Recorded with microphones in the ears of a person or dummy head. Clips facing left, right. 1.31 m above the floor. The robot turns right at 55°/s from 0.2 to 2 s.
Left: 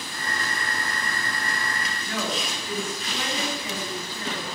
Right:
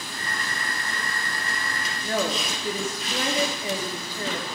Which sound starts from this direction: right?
A woman speaking, at 2.0 s.